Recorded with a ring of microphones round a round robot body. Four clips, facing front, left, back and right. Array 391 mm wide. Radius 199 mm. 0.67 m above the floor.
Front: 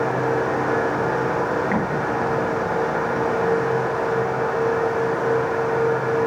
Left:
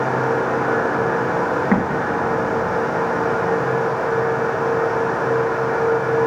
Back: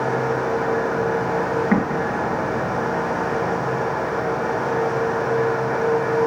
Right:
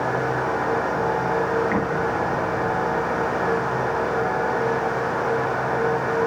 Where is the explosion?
110° left, 5.5 m.